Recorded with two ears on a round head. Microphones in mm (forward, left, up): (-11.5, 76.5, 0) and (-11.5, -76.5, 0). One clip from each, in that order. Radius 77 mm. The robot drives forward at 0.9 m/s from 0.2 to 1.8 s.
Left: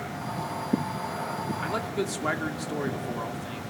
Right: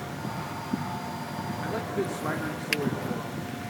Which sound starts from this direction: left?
A man speaking, at 1.6 s.